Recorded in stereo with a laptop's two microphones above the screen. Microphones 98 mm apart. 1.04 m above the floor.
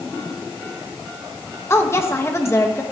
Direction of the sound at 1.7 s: 25° left (ahead or behind).